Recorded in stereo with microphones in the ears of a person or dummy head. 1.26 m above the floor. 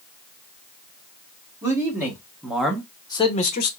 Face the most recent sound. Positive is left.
turn(degrees=55)  # may be behind; listen again after turning